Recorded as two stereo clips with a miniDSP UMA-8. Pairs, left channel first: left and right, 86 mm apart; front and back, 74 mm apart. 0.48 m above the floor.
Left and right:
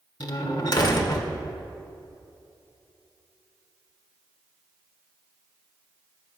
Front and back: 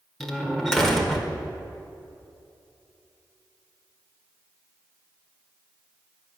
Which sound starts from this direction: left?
A door slam, at 0.2 s.